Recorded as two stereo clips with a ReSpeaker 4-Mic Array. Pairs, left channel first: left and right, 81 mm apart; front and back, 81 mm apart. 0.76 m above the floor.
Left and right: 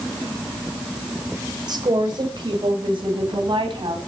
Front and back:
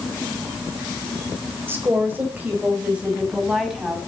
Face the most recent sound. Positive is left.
turn(degrees=-95)